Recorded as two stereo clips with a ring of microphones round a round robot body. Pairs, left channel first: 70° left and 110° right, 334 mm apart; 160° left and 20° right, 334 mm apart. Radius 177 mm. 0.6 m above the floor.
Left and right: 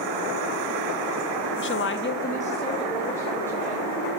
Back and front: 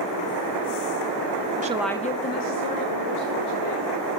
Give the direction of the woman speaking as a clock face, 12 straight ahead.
11 o'clock.